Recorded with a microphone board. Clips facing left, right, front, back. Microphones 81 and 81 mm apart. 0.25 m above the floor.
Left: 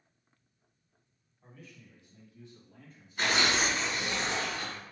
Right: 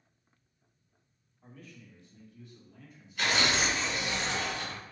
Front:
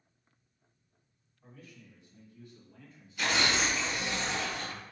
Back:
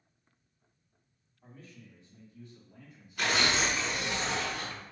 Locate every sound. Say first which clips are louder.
1.4 s a man speaking: right 2 dB, back 1 dB; straight behind, 1.7 m; by 4.2 s 100° left, 2.5 m
3.2 s tearing paper: even, back 1 dB; 140° left, 2 m